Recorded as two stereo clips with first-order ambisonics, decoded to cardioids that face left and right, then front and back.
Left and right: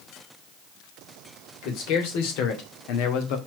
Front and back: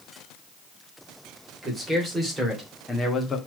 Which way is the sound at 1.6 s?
100° left.